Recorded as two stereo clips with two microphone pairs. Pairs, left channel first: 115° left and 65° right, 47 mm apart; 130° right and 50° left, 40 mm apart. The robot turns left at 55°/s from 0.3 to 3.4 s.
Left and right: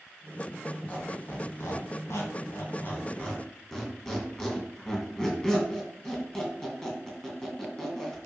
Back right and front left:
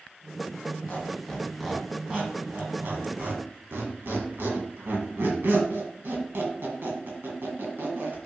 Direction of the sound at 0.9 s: Straight behind.